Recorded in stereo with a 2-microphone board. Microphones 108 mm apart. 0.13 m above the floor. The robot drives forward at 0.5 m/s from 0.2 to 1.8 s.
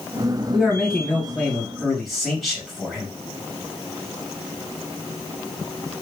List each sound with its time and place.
0.5 s a man speaking: 5° left (ahead or behind), 2 m